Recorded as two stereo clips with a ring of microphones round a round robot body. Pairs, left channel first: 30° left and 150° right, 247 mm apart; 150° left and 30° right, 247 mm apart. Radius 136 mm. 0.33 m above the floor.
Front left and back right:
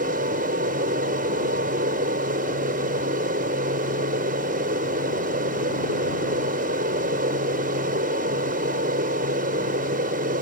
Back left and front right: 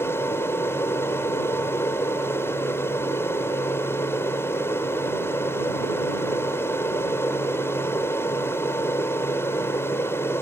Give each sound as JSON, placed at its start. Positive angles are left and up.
{"t": 0.0, "sound": "an aircraft", "azimuth_deg": -135}